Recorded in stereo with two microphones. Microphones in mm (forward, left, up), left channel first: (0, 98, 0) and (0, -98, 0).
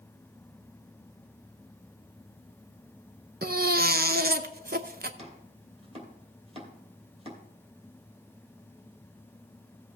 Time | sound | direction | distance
3.4 | a baby crying | 50° right (ahead or behind) | 0.7 m
5.2 | chopping | 30° right (ahead or behind) | 2.5 m